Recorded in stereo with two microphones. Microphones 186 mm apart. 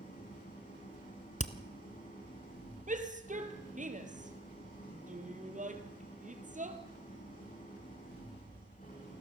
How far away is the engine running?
About 10 m.